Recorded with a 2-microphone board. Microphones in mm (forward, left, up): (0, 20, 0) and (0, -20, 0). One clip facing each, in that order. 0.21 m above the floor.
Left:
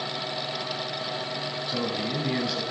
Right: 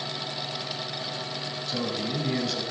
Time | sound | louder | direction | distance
1.7 | a man speaking | even | 15° left (ahead or behind) | 1.1 m